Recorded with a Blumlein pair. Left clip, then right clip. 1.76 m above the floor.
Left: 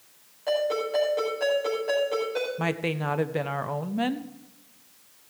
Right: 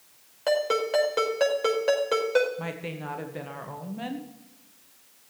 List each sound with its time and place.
0.5 s a ringtone: 60° right, 5 m
2.6 s a woman speaking: 25° left, 1.0 m